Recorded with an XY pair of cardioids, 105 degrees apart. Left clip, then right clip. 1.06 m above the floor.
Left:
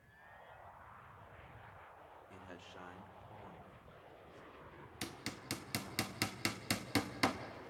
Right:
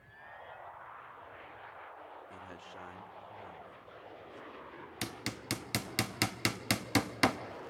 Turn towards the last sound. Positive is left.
turn(degrees=-45)